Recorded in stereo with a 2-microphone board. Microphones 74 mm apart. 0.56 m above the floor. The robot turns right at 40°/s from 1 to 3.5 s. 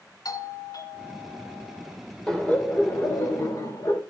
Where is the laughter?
5° left, 2 m; by 4.0 s 55° left, 2 m.